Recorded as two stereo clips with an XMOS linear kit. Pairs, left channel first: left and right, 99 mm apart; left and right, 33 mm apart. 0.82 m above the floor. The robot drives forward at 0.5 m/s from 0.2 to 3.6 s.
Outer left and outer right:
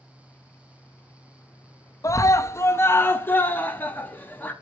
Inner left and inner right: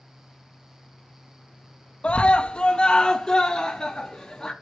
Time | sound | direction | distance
2.0 | a scream | 35° left (ahead or behind) | 0.7 m